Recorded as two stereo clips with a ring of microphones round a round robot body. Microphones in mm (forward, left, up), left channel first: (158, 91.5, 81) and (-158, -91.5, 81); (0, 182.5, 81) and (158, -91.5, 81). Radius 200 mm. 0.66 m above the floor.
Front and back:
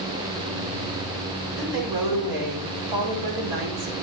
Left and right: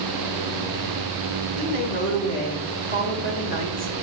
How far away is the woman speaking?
About 3.5 m.